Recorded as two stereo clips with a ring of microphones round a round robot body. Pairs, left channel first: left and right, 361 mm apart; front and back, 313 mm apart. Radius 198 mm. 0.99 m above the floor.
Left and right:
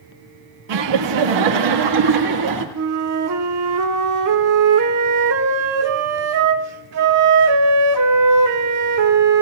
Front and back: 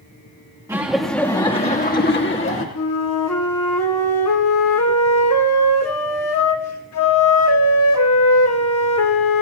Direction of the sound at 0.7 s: 100° right.